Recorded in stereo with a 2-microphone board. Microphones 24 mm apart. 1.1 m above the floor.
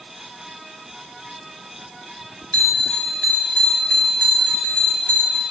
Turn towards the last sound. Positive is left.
turn(degrees=60)  # may be behind; listen again after turning